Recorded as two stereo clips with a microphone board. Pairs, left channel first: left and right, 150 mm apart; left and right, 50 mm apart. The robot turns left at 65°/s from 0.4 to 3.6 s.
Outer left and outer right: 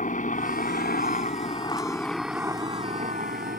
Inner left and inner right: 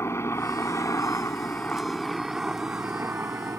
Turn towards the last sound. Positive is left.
turn(degrees=-90)